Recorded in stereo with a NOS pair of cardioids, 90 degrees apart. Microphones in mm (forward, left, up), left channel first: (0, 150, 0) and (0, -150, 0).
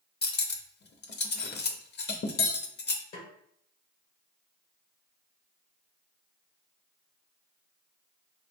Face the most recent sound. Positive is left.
turn(degrees=60)